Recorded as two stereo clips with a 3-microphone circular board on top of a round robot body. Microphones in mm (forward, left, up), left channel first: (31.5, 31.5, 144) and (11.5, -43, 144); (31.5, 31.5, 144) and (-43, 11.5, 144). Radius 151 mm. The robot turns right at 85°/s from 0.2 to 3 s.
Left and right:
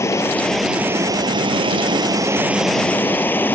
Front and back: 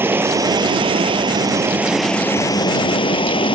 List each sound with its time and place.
0.0 s running water: 130° left; by 3.5 s 10° left